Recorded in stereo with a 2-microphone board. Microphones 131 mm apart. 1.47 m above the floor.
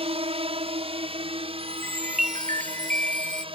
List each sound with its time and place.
0.0 s a drone: 50° right (ahead or behind); by 3.5 s 45° right (ahead or behind)
1.6 s a chime: 80° right